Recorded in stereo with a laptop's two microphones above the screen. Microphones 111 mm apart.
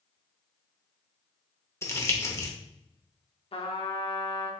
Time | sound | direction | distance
1.8 | crumpling | 25° left (ahead or behind) | 0.7 m
3.5 | a trumpet | 55° left (ahead or behind) | 0.8 m